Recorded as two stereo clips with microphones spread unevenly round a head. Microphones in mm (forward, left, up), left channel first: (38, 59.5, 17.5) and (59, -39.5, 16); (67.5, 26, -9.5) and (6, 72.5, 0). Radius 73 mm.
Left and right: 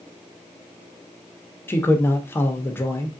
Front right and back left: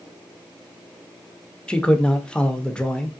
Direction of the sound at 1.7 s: 45° left.